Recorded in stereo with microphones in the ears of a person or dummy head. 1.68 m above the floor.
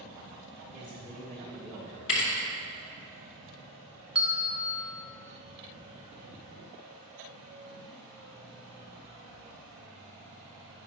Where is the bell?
20° right (ahead or behind), 0.6 m.